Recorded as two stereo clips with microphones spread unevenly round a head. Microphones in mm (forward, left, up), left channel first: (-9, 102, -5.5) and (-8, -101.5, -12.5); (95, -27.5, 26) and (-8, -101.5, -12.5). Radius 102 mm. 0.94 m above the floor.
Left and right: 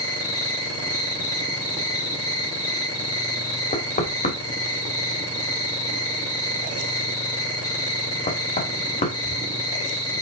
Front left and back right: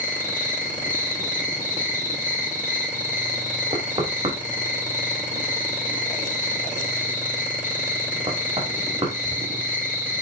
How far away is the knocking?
About 1.8 m.